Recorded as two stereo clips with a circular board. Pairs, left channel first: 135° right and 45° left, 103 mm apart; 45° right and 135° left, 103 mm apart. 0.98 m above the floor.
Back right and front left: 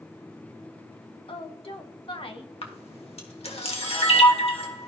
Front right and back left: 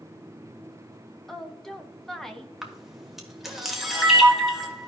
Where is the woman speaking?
130° right, 1.0 m.